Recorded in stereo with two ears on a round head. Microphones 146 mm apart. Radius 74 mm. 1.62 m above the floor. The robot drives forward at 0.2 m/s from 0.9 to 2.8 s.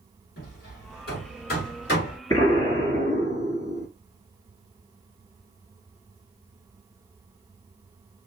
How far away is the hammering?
About 2.5 m.